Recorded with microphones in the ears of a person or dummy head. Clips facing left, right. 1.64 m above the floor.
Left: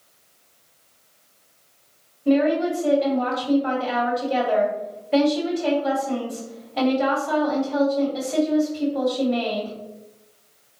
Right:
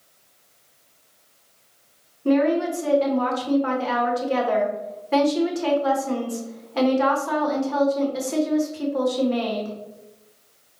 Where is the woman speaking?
70° right (ahead or behind), 1.4 m.